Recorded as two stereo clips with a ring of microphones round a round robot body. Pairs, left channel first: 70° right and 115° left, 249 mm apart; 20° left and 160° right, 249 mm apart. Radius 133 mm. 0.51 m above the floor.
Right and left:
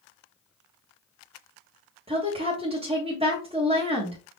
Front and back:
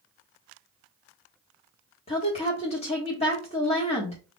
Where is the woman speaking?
65° left, 1.4 m.